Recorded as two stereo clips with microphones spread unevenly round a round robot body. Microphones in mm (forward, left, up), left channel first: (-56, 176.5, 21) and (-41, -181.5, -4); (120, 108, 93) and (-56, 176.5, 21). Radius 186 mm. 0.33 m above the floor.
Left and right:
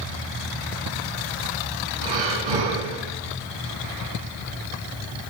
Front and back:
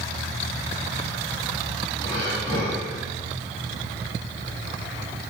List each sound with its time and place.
2.0 s breathing: 95° right, 3 m